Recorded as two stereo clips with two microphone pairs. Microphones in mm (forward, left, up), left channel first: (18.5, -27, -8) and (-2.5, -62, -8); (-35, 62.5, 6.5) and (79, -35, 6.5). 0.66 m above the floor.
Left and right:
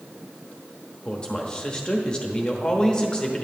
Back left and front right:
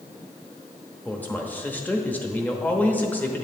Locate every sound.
1.1 s a man speaking: 85° left, 0.9 m